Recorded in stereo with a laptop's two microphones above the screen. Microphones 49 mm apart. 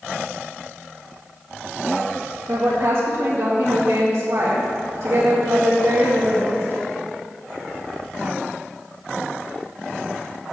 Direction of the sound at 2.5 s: 70° right (ahead or behind).